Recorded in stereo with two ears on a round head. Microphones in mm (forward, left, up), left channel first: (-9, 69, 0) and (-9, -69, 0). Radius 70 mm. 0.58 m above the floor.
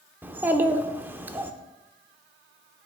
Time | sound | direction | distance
0.2 | a child speaking | 10° right (ahead or behind) | 0.7 m